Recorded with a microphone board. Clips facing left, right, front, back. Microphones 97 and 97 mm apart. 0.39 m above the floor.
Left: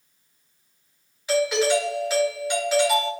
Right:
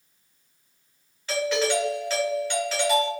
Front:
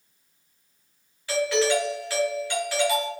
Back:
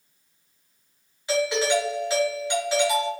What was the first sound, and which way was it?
A doorbell, 145° left.